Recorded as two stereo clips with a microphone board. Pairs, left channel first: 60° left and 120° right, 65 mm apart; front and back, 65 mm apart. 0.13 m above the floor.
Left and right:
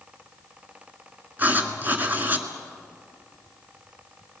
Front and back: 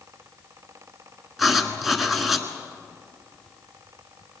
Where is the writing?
90° right, 1.6 m.